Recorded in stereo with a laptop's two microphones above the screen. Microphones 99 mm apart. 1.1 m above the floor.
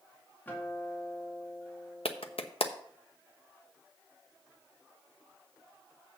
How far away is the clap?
About 0.9 m.